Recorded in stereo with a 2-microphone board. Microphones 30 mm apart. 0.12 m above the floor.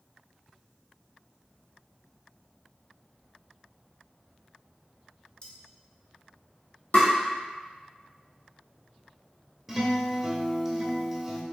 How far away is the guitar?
About 0.6 m.